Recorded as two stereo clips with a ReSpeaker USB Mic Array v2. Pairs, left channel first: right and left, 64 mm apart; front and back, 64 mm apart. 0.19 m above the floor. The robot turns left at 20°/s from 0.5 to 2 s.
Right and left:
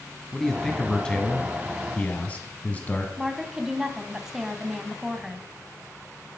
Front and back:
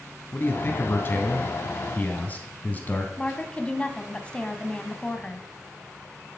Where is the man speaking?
10° right, 1.4 m; by 3.1 s 40° right, 1.4 m.